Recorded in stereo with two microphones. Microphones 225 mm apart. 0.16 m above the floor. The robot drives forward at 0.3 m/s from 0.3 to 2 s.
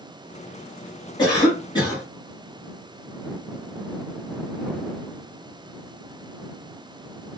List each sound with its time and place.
1.2 s a cough: 20° left (ahead or behind), 1.3 m